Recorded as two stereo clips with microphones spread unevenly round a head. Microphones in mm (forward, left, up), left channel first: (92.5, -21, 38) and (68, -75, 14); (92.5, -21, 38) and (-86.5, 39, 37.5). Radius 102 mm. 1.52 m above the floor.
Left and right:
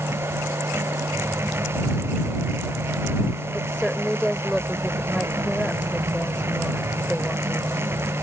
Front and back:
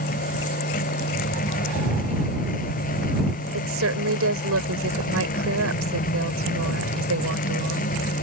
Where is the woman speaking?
150° left.